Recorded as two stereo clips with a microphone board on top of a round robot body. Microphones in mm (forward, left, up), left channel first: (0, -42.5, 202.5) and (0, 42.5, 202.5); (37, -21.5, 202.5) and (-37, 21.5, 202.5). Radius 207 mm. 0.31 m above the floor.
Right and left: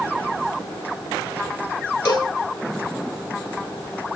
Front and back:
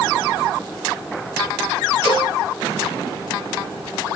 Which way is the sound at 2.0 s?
50° right.